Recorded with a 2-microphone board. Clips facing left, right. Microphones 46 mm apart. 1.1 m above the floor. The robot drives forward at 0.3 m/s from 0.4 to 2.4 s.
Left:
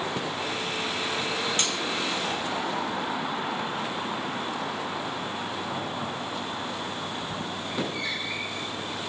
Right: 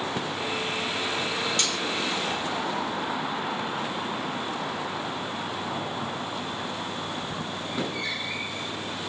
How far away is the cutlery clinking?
About 0.7 m.